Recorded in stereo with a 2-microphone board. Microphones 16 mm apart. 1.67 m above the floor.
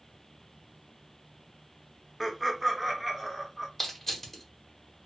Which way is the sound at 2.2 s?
5° right (ahead or behind).